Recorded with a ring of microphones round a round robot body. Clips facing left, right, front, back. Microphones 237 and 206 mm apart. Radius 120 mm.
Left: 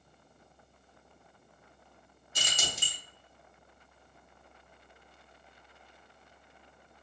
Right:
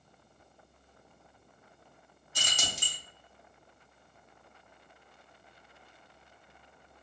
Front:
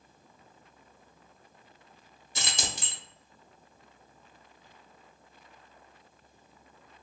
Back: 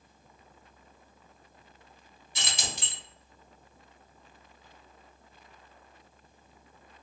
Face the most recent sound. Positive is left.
turn(degrees=25)